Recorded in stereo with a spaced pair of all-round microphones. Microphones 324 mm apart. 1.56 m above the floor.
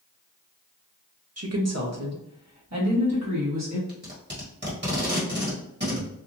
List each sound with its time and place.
1.4 s a woman speaking: 50° right (ahead or behind), 0.7 m; by 3.8 s 55° right (ahead or behind), 2 m
3.9 s tape being pulled: 35° right (ahead or behind), 1.7 m